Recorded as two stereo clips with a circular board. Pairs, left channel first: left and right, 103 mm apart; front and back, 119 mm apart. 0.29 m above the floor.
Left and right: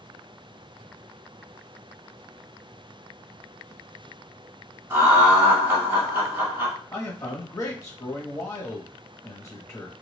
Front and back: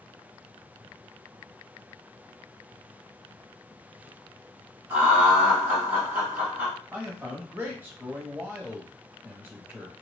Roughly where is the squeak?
I don't hear a squeak.